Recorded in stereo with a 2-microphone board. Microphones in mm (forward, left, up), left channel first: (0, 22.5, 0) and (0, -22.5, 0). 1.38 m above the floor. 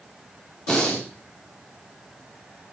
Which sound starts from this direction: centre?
Breathing, at 0.7 s.